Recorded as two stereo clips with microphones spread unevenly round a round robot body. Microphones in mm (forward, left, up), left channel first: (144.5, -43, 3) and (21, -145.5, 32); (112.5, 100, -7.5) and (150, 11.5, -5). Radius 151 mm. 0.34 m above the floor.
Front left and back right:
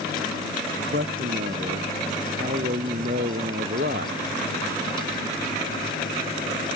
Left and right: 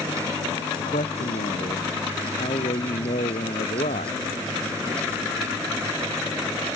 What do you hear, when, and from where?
0.8 s a man speaking: 160° left